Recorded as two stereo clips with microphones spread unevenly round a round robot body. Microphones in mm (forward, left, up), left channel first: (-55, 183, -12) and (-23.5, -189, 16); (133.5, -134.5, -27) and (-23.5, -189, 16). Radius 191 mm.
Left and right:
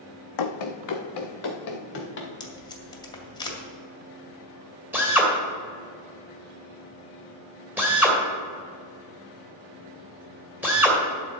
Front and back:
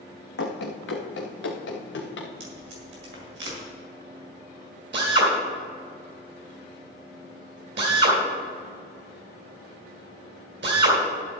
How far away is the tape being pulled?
About 2 m.